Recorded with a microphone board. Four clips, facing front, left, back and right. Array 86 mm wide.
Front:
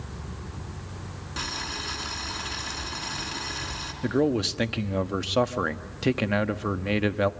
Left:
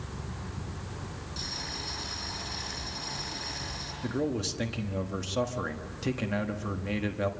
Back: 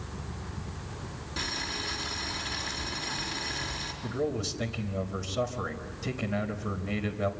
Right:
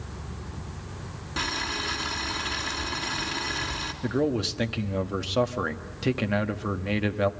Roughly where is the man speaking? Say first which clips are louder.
Right 5 dB, front 8 dB; ahead.